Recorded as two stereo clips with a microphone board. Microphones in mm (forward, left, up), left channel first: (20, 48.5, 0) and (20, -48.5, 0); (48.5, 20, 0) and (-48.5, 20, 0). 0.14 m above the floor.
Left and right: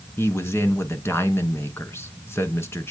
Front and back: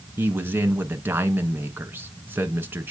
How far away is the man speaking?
About 1.3 m.